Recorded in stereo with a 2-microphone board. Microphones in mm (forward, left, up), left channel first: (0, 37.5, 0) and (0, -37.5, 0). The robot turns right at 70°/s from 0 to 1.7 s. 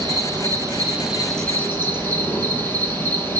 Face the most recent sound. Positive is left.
turn(degrees=30)